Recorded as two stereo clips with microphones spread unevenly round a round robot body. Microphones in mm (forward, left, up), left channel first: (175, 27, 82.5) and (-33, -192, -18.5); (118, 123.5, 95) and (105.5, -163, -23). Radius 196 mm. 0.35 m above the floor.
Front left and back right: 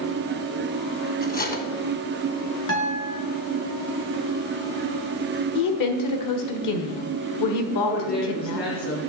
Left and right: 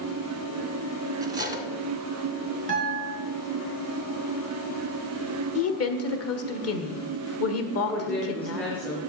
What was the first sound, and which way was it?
Cutlery clinking, 20° right.